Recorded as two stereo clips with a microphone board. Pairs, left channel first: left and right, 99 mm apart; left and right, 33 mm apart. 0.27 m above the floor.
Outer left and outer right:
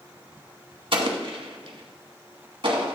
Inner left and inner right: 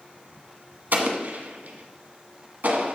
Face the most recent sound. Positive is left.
turn(degrees=-65)  # may be behind; listen again after turning